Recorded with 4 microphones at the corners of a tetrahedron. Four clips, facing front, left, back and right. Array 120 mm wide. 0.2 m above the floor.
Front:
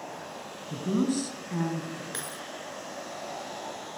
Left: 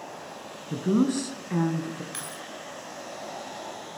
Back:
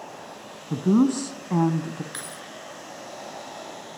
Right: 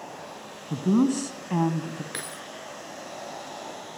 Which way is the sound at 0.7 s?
165° right.